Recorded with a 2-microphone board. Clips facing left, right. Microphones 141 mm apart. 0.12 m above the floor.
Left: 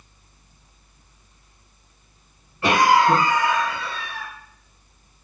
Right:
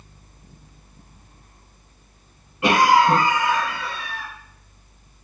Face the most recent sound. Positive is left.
turn(degrees=-15)  # may be behind; listen again after turning